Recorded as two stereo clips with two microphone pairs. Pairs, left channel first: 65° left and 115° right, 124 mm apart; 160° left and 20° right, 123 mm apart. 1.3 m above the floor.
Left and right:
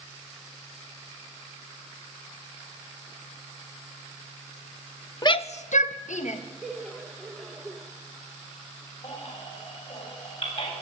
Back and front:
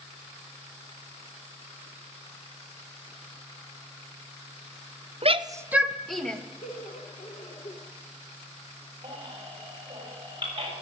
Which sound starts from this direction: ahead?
A shout, at 5.2 s.